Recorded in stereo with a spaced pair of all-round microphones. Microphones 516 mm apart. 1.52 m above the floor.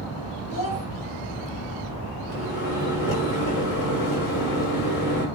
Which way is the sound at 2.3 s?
40° left (ahead or behind).